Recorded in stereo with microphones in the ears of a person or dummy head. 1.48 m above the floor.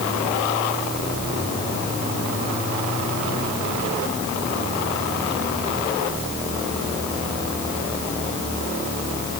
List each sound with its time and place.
Only background noise.